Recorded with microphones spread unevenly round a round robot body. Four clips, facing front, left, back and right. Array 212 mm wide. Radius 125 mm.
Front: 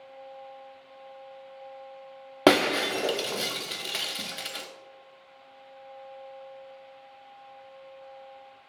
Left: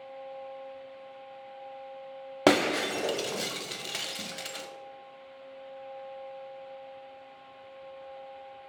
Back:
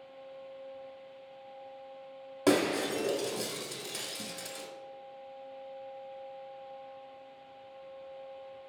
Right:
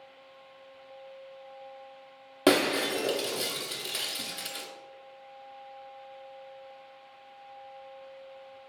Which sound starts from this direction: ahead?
Breaking glass, at 2.5 s.